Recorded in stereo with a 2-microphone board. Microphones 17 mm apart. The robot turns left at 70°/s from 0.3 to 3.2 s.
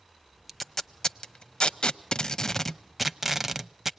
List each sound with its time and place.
0.5 s tape being pulled: 10° left (ahead or behind), 0.6 m; by 3.9 s 15° right (ahead or behind), 0.6 m